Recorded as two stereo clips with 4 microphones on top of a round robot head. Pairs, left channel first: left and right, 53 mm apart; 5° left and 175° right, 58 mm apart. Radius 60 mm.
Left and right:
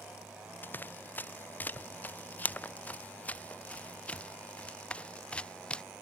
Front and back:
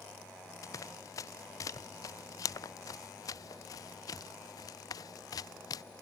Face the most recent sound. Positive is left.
turn(degrees=20)